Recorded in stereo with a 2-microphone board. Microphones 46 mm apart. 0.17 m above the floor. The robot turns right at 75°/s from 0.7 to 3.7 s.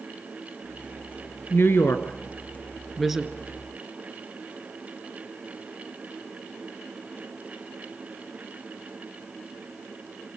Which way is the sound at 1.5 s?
50° left (ahead or behind).